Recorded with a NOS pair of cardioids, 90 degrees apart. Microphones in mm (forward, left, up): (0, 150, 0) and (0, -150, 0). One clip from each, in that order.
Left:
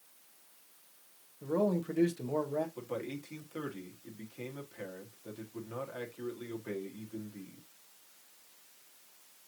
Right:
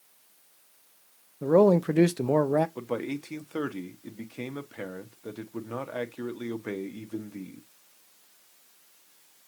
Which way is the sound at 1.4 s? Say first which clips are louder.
Right 12 dB; 60° right.